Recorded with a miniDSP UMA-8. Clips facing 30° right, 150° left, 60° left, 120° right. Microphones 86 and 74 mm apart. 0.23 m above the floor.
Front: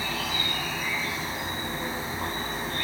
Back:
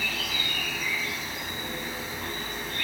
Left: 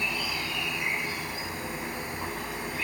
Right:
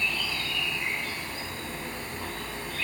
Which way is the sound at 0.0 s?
5° right.